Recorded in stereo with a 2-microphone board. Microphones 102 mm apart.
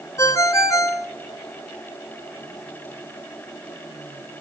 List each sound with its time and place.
0.2 s a ringtone: 30° left (ahead or behind), 1.0 m